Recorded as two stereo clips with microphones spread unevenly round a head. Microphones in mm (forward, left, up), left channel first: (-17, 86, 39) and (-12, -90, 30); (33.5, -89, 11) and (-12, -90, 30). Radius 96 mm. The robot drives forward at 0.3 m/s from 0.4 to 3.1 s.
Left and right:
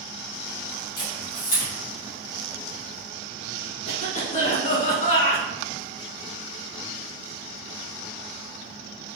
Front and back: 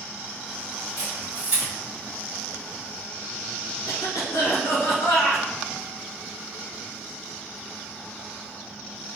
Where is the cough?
45° left, 1.0 m.